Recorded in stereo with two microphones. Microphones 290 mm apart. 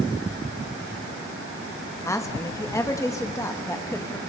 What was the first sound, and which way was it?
A woman speaking, 10° left (ahead or behind).